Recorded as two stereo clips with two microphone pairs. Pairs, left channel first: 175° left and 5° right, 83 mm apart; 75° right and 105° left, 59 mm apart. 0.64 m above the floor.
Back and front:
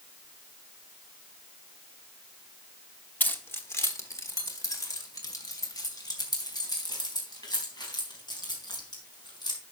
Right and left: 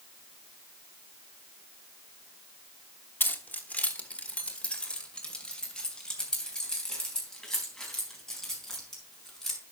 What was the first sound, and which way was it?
Keys jangling, 120° right.